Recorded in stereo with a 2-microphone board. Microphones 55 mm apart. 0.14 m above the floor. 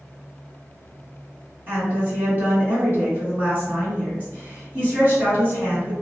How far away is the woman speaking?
About 1.8 m.